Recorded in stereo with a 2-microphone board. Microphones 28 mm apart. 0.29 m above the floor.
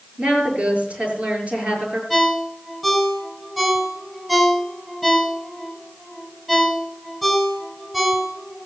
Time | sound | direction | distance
0.2 | a woman speaking | 45° right (ahead or behind) | 6 m
2.1 | a ringtone | 5° right (ahead or behind) | 2.5 m